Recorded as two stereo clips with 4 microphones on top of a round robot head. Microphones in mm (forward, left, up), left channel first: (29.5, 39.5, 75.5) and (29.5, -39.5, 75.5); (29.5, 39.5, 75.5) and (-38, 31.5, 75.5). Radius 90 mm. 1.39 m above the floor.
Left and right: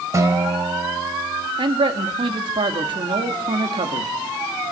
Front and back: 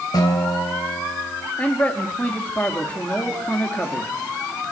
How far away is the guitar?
About 3 m.